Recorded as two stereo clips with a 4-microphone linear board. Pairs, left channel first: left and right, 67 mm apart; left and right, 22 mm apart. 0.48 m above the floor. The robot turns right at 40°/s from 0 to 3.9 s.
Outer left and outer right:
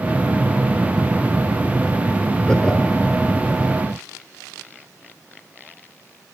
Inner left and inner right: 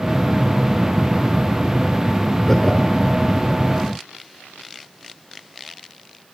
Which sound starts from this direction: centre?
Laughter, at 2.5 s.